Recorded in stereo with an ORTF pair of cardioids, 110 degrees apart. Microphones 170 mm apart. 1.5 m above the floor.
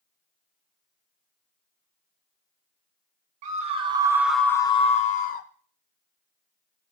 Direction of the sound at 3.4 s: 45° right.